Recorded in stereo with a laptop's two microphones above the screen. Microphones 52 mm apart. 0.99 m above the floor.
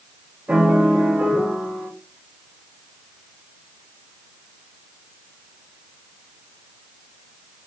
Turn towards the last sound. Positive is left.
turn(degrees=-25)  # may be behind; listen again after turning